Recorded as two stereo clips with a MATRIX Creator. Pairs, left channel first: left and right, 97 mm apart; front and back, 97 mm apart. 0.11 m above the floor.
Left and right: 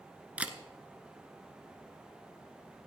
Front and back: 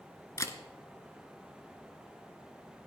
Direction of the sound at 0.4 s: 25° right.